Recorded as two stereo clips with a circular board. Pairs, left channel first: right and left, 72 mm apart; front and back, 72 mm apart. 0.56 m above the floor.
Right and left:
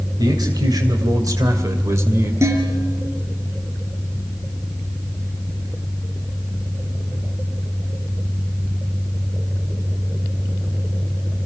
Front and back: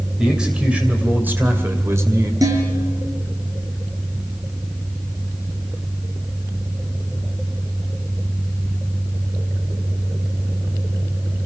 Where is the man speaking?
100° left, 3 m; by 2.3 s 140° left, 2.5 m.